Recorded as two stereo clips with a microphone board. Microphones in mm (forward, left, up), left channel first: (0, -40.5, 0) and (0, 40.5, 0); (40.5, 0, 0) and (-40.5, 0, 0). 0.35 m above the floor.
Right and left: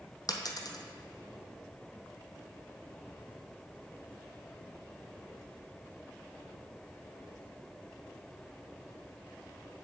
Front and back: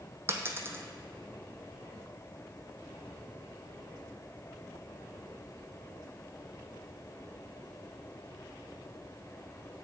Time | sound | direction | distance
0.3 | a dropped coin | 125° right | 0.8 m